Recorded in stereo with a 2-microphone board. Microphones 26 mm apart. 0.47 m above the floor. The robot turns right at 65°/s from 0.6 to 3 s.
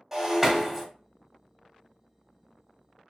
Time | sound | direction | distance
0.1 | breaking glass | 15° right (ahead or behind) | 1.3 m